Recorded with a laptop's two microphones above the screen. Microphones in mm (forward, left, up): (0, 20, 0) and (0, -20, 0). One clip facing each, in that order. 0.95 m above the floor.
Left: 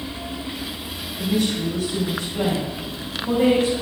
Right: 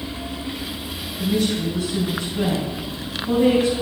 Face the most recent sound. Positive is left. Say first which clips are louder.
# right 1 dB
turn(degrees=85)